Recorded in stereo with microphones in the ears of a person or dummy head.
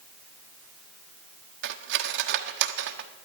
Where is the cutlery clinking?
70° right (ahead or behind), 1.0 m.